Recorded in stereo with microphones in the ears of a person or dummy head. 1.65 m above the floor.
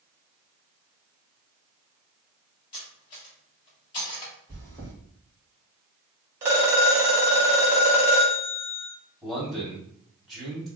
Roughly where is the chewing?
Centre.